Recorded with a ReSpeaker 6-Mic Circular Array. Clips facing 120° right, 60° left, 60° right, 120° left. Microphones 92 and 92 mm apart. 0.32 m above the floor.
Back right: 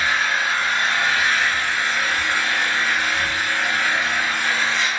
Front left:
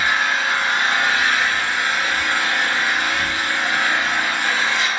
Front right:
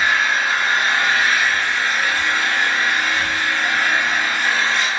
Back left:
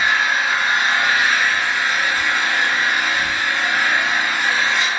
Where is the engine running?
35° left, 0.7 m.